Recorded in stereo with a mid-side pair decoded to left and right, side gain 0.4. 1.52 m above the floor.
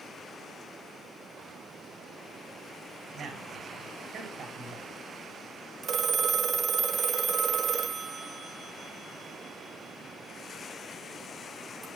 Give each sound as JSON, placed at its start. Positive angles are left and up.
{"t": 3.1, "sound": "a man speaking", "azimuth_deg": -65, "distance_m": 5.0}
{"t": 5.8, "sound": "a phone ringing", "azimuth_deg": -55, "distance_m": 1.3}